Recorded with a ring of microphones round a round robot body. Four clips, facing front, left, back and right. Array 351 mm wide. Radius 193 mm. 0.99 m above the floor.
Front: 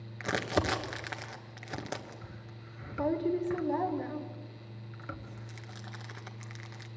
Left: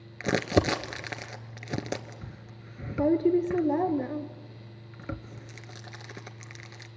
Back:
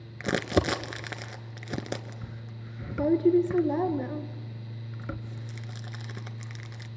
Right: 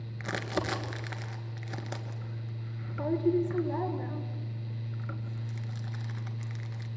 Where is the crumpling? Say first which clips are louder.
Left 8 dB, back 5 dB; 130° left, 1.1 m.